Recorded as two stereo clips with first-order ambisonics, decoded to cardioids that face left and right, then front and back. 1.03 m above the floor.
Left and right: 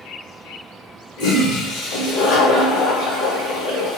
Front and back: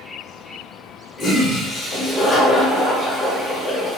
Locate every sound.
1.2 s a toilet flushing: 75° left, 1.2 m